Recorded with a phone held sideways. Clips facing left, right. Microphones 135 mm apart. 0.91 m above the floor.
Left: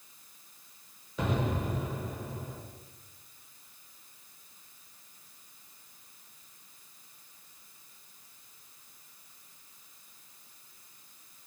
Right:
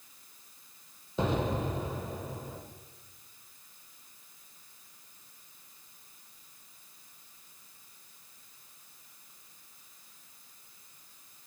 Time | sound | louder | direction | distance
1.2 | an explosion | right 2 dB | 25° right (ahead or behind) | 1.0 m